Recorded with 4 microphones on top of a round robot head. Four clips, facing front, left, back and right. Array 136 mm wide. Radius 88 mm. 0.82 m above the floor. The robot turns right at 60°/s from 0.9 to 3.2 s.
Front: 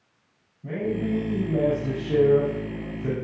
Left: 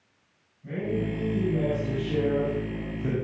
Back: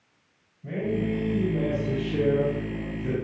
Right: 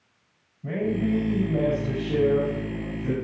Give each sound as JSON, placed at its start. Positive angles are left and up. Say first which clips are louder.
{"t": 0.6, "sound": "a man speaking", "louder": "right 4 dB, front 1 dB", "azimuth_deg": -70, "distance_m": 6.5}